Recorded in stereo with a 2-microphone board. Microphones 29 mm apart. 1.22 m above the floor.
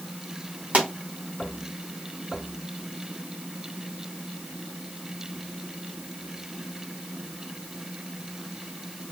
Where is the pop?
40° right (ahead or behind), 1.6 m.